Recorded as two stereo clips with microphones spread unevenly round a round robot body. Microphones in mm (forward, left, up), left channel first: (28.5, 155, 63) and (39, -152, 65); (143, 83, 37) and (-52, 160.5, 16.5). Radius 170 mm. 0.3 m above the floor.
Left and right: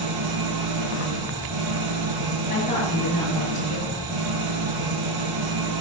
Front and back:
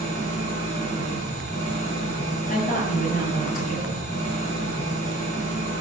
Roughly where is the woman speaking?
Ahead left.